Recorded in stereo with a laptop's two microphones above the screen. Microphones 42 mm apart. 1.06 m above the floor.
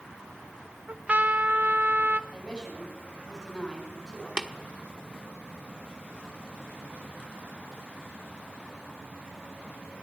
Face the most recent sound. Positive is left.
turn(degrees=-25)  # may be behind; listen again after turning